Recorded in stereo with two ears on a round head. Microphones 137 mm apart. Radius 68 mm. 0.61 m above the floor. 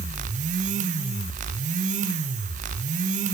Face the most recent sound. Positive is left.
No sound to turn to.